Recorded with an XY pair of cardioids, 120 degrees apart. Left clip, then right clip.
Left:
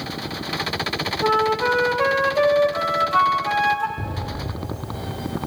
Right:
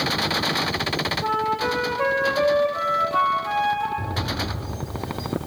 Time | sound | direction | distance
1.2 | a flute | 25° left | 1.1 m
4.0 | an explosion | 40° left | 3.5 m